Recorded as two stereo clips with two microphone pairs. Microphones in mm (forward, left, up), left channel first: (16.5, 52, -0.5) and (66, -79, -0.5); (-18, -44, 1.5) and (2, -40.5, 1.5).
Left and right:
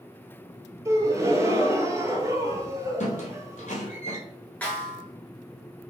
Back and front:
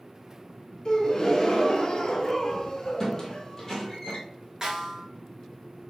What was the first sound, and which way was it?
A gasp, 130° right.